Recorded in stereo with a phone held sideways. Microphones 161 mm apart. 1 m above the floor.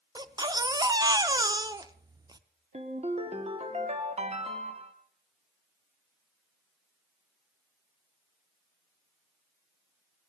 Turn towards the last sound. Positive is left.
turn(degrees=-40)  # may be behind; listen again after turning